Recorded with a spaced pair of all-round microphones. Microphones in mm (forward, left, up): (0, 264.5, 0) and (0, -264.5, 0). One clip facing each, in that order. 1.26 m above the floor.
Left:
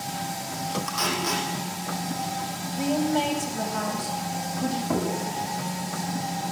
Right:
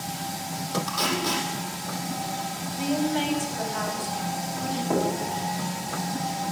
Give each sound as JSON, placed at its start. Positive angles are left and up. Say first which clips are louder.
{"t": 0.9, "sound": "tape being pulled", "louder": "right 1 dB", "side_deg": -55, "distance_m": 8.0}
{"t": 2.8, "sound": "a woman speaking", "louder": "left 1 dB", "side_deg": 60, "distance_m": 6.5}
{"t": 4.9, "sound": "knocking", "louder": "right 4 dB", "side_deg": 30, "distance_m": 8.0}